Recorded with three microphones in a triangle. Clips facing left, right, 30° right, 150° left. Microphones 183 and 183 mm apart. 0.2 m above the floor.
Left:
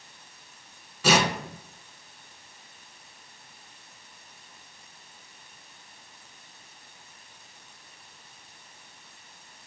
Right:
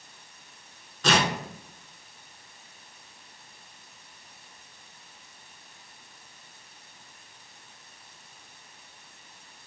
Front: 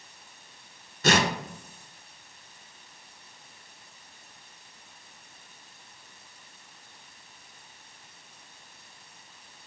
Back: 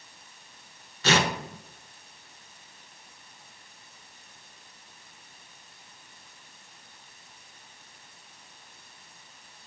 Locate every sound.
1.0 s tearing paper: 10° left, 0.7 m